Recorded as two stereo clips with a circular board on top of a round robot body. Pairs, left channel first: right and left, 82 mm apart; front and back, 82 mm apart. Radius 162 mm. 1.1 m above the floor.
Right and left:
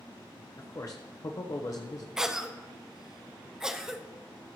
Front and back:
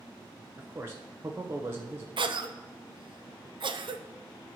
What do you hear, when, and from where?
0.6 s a man speaking: 125° right, 0.8 m
2.2 s a cough: 175° left, 0.9 m